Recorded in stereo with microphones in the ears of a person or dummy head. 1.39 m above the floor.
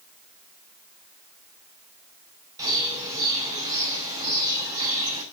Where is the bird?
20° right (ahead or behind), 5.5 m.